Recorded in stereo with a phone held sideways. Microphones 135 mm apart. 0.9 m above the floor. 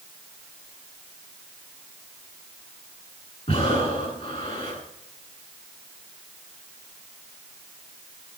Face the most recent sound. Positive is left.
turn(degrees=50)  # may be behind; listen again after turning